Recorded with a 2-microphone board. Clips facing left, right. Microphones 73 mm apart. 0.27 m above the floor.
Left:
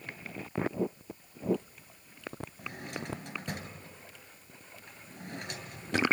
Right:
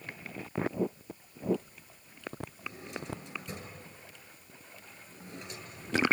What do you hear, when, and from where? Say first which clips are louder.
2.6 s a drawer: left 2 dB; 65° left (ahead or behind), 3 m